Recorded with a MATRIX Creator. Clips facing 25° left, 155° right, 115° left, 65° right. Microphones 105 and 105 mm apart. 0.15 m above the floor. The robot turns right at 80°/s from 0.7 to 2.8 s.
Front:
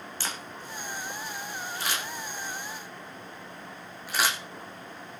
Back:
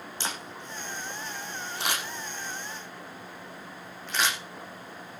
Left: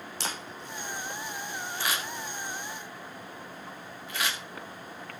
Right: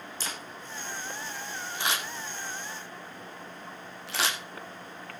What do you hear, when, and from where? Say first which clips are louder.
0.2 s a camera shutter: back 2 dB, left 4 dB; 135° left, 7.5 m; by 4.4 s 60° right, 7.5 m